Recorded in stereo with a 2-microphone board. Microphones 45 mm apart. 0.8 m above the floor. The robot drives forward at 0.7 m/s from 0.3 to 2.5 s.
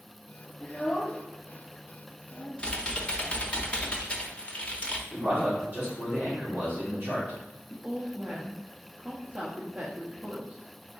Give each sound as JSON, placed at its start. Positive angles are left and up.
{"t": 0.6, "sound": "a child speaking", "side_deg": 30, "distance_m": 0.8}
{"t": 2.6, "sound": "typing on a keyboard", "side_deg": 25, "distance_m": 0.7}
{"t": 5.1, "sound": "a man speaking", "side_deg": -50, "distance_m": 2.0}
{"t": 7.7, "sound": "a woman speaking", "side_deg": -30, "distance_m": 0.7}